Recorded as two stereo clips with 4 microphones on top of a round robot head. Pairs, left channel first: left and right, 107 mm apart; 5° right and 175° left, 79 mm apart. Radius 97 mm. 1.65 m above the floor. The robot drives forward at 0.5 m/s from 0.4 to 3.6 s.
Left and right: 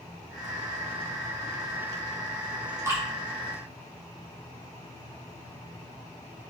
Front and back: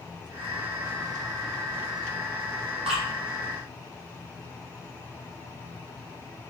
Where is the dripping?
150° right, 0.8 m; by 3.0 s 155° right, 0.9 m.